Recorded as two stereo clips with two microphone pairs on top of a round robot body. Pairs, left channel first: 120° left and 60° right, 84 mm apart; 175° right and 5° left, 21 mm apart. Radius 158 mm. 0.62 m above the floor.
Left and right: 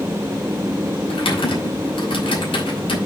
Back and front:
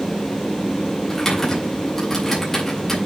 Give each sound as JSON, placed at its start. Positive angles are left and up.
{"t": 1.1, "sound": "typing on a keyboard", "azimuth_deg": 115, "distance_m": 4.5}